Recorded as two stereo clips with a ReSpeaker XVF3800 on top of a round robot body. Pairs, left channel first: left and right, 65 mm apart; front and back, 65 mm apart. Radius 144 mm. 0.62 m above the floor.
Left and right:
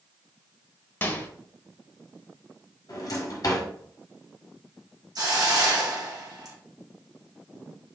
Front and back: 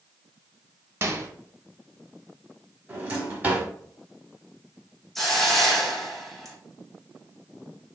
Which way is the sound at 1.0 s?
140° left.